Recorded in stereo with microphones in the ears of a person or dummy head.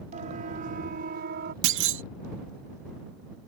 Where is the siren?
45° right (ahead or behind); by 1.5 s 60° right (ahead or behind).